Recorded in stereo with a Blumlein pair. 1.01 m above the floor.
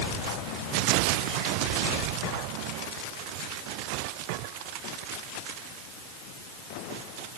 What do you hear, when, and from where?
Only background noise.